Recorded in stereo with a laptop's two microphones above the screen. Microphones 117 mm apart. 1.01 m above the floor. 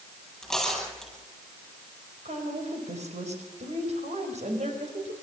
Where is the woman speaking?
70° right (ahead or behind), 4.5 m.